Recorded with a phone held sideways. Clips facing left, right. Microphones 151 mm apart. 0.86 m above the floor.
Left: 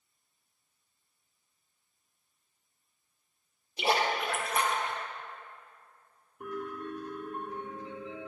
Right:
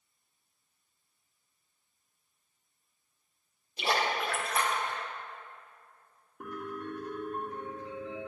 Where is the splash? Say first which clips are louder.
Left 2 dB; 20° left (ahead or behind), 1.3 m.